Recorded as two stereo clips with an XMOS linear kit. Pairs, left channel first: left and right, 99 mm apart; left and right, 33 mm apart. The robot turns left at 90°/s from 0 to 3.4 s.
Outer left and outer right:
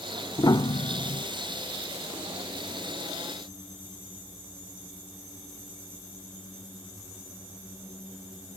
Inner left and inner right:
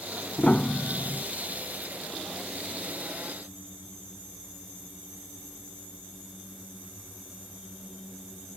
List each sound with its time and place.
0.4 s a piano: 35° left (ahead or behind); by 1.2 s 55° left (ahead or behind)